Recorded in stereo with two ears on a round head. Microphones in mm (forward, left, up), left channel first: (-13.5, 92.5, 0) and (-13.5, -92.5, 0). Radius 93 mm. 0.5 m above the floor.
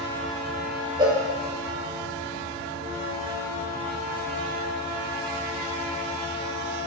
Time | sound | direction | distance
1.0 | a cowbell | 20° right (ahead or behind) | 0.7 m